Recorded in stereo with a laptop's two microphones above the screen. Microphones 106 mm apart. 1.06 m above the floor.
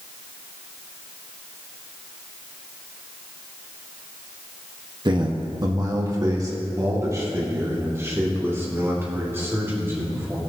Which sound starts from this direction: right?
A man speaking, at 5.0 s.